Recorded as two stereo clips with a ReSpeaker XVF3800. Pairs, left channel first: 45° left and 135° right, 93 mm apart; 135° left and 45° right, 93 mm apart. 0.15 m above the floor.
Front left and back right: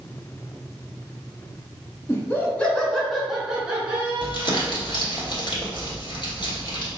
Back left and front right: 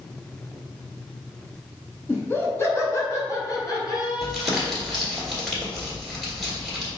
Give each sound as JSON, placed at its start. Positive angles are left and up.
{"t": 2.1, "sound": "laughter", "azimuth_deg": 85, "distance_m": 1.3}
{"t": 4.2, "sound": "crumpling", "azimuth_deg": 45, "distance_m": 1.6}